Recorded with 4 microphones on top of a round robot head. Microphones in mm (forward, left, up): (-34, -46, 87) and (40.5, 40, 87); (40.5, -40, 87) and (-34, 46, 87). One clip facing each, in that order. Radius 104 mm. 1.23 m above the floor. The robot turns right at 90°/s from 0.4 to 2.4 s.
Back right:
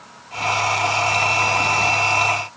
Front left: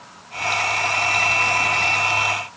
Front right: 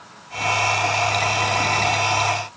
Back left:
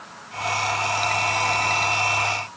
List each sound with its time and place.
Only background noise.